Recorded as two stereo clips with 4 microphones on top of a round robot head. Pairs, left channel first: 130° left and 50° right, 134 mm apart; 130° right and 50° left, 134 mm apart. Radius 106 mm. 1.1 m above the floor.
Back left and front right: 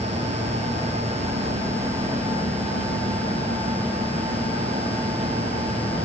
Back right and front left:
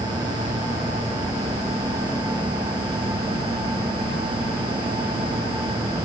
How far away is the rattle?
I don't hear a rattle.